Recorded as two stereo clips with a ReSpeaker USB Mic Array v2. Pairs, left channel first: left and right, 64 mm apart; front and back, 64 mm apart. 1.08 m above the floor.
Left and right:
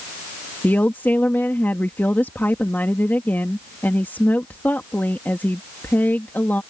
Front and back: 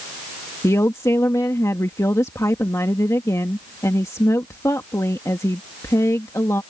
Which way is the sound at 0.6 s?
35° left.